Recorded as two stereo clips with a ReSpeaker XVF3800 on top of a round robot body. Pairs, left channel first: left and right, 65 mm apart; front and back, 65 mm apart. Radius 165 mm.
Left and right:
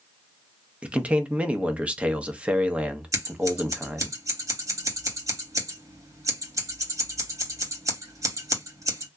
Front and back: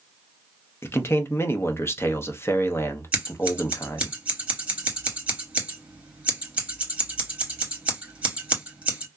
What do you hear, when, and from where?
0.8 s a man speaking: 25° right, 0.9 m
3.1 s scissors: 110° right, 2.5 m